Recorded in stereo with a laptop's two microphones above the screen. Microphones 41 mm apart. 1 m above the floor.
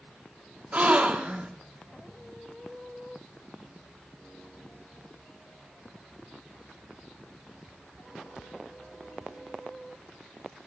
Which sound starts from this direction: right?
A gasp, at 0.7 s.